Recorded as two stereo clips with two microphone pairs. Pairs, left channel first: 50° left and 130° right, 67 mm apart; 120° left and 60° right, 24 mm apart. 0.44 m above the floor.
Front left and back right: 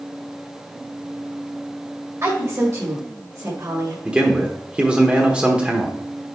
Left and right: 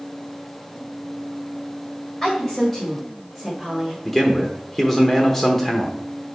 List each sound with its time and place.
2.2 s a woman speaking: 160° right, 2 m; by 4.0 s 120° right, 1.9 m
4.0 s a man speaking: 175° right, 1.0 m